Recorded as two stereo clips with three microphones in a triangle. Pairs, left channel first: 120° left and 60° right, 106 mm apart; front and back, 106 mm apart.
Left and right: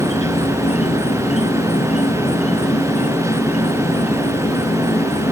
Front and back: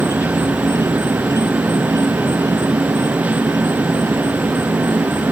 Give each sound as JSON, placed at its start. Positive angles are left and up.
{"t": 0.0, "sound": "an insect", "azimuth_deg": 120}